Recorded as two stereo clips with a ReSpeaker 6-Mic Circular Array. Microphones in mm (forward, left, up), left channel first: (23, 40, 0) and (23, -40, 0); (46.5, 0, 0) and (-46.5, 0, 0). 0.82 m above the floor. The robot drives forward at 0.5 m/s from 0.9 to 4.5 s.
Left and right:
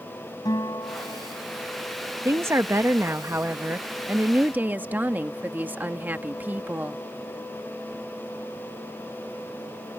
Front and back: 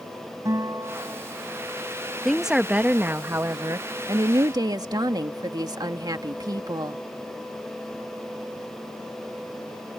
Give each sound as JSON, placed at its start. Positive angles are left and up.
{"t": 0.5, "sound": "a guitar", "azimuth_deg": 130}
{"t": 2.2, "sound": "a woman speaking", "azimuth_deg": -90}